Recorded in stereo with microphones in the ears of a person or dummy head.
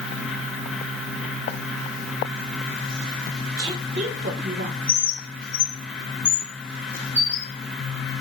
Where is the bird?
15° left (ahead or behind), 4.5 m.